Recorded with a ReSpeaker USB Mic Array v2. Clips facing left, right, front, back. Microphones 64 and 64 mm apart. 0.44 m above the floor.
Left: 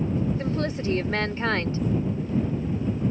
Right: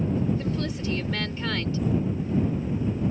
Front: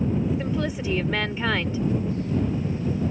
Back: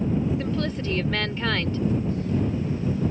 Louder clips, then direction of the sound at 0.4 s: Left 2 dB, even; 75° left.